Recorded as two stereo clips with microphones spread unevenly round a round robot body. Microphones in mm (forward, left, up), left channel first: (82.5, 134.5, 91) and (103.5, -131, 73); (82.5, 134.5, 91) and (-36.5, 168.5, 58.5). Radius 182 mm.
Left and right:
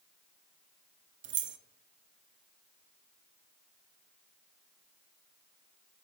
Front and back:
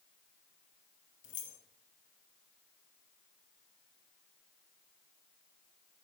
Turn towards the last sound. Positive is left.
turn(degrees=-35)